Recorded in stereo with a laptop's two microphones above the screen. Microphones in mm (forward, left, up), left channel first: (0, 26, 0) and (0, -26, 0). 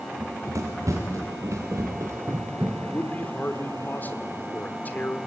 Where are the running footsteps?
75° right (ahead or behind), 3.5 m.